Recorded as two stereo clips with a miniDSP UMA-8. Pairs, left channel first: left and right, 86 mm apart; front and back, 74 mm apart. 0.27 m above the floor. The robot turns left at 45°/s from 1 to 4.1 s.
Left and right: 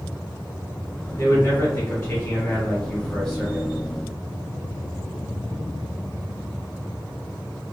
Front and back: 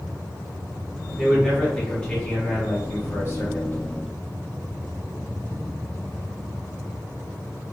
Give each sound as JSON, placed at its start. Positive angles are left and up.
{"t": 1.2, "sound": "a man speaking", "azimuth_deg": 100, "distance_m": 1.6}